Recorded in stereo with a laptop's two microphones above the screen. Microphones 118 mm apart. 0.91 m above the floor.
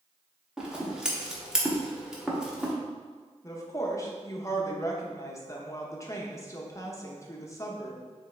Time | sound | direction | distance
0.6 | scissors | 5° right (ahead or behind) | 0.6 m
3.4 | a woman speaking | 25° left (ahead or behind) | 0.7 m